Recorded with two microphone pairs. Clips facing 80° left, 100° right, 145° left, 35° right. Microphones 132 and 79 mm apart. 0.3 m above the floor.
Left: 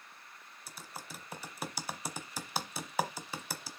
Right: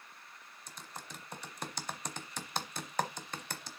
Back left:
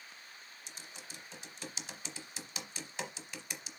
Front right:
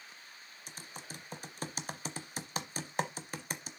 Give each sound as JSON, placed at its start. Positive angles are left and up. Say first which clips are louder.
{"t": 0.7, "sound": "typing on a keyboard", "louder": "left 1 dB, front right 5 dB", "azimuth_deg": -5, "distance_m": 0.9}